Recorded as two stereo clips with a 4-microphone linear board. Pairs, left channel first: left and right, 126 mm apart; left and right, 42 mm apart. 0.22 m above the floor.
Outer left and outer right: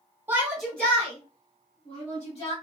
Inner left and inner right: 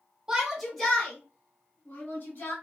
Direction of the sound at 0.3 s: 15° right (ahead or behind).